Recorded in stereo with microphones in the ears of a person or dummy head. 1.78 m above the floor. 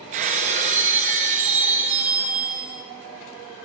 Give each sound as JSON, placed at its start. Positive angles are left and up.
{"t": 0.1, "sound": "breaking glass", "side_deg": -40, "distance_m": 2.5}